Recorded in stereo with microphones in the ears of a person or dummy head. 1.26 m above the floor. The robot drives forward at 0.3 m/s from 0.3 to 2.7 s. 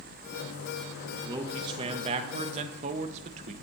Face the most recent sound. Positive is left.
turn(degrees=-35)  # may be behind; listen again after turning